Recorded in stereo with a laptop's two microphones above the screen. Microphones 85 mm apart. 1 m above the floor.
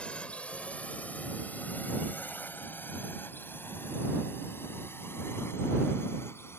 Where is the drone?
10° left (ahead or behind); by 6.6 s 30° left (ahead or behind).